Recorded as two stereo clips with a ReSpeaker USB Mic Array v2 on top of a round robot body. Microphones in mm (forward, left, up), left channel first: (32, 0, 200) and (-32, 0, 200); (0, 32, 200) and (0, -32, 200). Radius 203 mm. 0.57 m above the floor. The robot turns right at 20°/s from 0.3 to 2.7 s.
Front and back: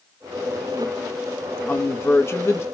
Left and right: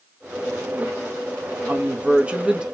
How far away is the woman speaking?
About 0.9 m.